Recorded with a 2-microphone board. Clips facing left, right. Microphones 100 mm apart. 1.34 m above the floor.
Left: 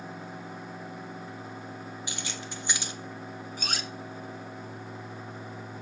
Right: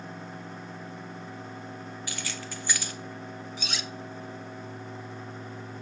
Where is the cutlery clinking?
45° left (ahead or behind), 0.6 m.